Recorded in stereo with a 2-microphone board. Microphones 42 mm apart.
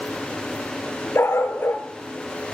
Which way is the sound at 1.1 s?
85° left.